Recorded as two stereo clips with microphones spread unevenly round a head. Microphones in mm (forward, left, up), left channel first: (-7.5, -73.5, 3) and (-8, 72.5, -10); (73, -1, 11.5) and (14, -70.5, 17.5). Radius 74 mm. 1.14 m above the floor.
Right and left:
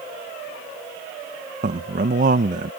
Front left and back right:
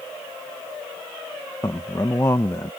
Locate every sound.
1.6 s a man speaking: 115° left